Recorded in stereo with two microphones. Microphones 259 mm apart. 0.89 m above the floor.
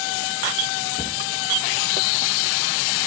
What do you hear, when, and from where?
1.0 s a cupboard door: 30° left (ahead or behind), 0.9 m